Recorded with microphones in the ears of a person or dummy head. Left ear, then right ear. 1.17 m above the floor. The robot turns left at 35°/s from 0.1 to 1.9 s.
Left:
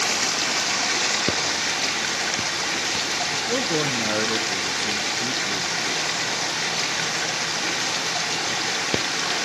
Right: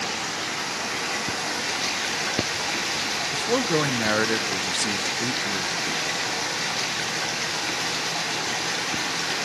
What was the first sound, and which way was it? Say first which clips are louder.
Running water: left 5 dB; 70° left.